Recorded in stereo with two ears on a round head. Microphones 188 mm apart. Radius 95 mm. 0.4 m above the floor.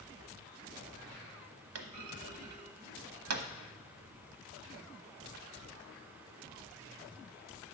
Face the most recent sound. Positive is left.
turn(degrees=-80)